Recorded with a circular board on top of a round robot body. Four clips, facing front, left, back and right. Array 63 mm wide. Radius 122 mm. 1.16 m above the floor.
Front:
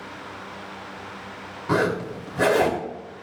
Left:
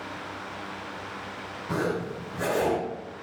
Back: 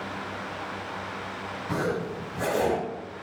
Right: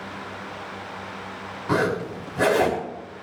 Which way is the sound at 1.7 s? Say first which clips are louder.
Right 6 dB, front 6 dB; 40° right.